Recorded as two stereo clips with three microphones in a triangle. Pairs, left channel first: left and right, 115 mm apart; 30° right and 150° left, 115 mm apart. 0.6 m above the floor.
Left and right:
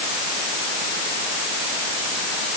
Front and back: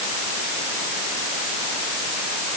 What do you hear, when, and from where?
Only background noise.